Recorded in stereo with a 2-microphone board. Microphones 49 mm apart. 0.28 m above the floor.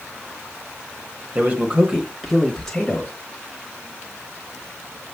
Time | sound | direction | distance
1.4 | a man speaking | 35° right (ahead or behind) | 1.1 m